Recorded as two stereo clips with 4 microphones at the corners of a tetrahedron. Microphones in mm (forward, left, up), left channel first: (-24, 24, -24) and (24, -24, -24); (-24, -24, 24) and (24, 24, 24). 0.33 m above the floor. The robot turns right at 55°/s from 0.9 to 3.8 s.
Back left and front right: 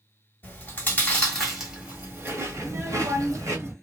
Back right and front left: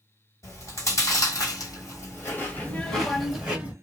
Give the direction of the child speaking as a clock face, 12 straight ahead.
3 o'clock.